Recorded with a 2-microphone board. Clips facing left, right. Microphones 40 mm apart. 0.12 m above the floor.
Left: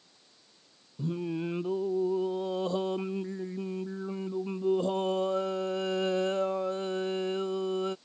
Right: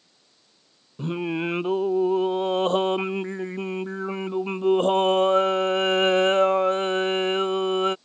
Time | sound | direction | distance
1.0 | singing | 65° right (ahead or behind) | ?